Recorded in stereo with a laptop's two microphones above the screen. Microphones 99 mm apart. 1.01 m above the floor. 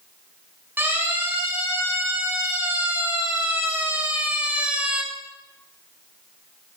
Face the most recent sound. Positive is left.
turn(degrees=-10)  # may be behind; listen again after turning